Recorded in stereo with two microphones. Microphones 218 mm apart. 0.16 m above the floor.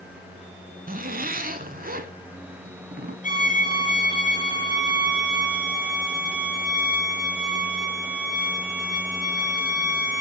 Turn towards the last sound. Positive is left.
turn(degrees=40)  # may be behind; listen again after turning